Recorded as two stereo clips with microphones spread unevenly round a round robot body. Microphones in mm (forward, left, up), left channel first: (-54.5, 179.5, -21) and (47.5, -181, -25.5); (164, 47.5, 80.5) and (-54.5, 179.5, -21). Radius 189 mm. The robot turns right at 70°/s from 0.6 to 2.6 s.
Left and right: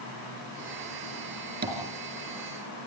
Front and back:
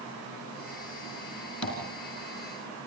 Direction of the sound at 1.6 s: 10° right.